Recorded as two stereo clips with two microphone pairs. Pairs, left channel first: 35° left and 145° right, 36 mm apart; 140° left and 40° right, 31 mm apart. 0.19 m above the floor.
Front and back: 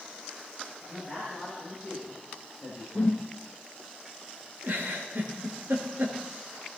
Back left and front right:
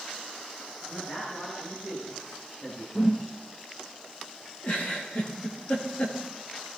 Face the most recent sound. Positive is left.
turn(degrees=175)